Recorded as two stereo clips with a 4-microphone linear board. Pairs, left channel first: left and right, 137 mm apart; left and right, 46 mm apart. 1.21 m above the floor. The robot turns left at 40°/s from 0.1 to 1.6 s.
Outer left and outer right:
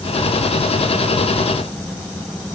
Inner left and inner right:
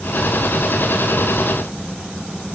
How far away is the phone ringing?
I don't hear a phone ringing.